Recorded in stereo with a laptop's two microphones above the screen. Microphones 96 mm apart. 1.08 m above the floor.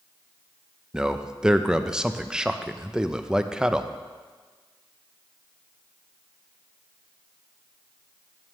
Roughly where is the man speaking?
Centre.